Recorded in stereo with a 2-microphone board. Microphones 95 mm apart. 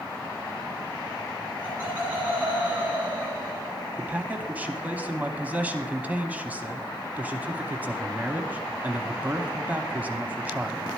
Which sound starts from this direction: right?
Laughter, at 1.6 s.